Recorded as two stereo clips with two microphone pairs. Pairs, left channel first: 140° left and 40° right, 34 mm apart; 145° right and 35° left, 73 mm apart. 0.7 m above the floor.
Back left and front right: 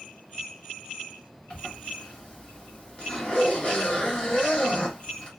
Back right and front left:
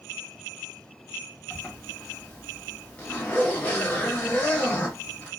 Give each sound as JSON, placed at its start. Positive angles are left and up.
{"t": 1.5, "sound": "a zipper", "azimuth_deg": 155, "distance_m": 1.0}